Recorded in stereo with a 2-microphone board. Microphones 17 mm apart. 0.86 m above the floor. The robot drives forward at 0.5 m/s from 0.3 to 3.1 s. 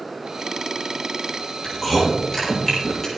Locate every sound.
1.6 s chewing: 15° left (ahead or behind), 6.5 m